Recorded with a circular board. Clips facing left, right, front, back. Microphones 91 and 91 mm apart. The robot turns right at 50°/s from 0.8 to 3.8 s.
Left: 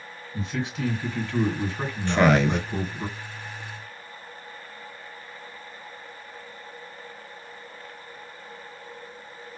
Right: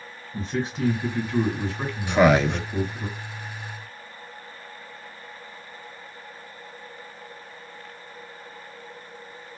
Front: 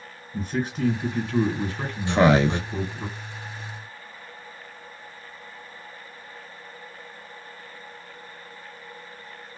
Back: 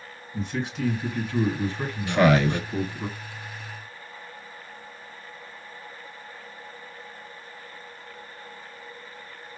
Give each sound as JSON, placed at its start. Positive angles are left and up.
{"t": 0.3, "sound": "a man speaking", "azimuth_deg": -40, "distance_m": 1.7}
{"t": 2.1, "sound": "a man speaking", "azimuth_deg": -25, "distance_m": 0.6}